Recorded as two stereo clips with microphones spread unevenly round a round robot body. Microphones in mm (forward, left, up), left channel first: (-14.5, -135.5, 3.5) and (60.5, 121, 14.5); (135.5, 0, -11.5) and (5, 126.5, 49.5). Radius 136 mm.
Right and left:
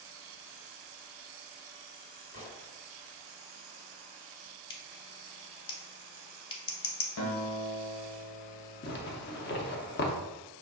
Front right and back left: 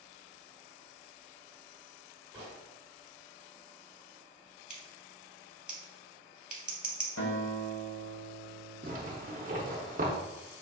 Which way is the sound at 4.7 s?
170° right.